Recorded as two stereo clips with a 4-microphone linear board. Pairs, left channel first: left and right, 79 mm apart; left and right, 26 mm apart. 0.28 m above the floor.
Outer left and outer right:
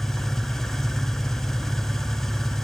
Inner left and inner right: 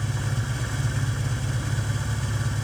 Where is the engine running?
5° left (ahead or behind), 3 m.